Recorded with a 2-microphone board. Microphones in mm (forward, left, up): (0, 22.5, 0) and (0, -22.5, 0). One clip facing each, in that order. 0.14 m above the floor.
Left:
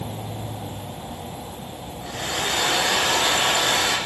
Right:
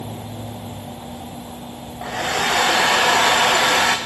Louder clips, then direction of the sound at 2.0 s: Right 6 dB; 70° right (ahead or behind).